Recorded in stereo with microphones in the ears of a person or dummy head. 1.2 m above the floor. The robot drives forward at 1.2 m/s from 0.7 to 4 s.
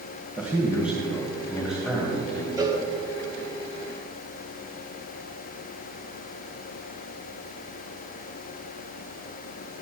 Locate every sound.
0.4 s a man speaking: 10° right (ahead or behind), 1.3 m; by 2.5 s 5° right (ahead or behind), 3.5 m
2.6 s a cowbell: 25° right (ahead or behind), 1.4 m; by 2.8 s 20° right (ahead or behind), 1.6 m